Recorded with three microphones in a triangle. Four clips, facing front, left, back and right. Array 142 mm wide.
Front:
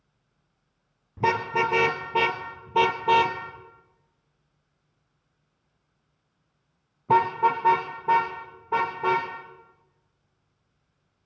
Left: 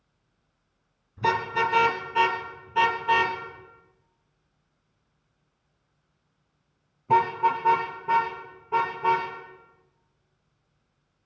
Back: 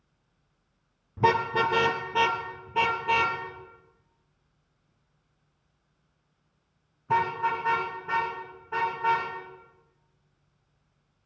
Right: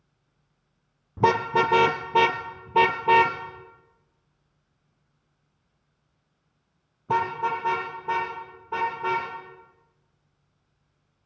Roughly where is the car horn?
Right.